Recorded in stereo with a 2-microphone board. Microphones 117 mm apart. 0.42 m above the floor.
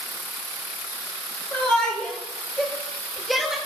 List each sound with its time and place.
1.5 s a shout: 20° left (ahead or behind), 2.5 m; by 3.6 s 5° right (ahead or behind), 1.5 m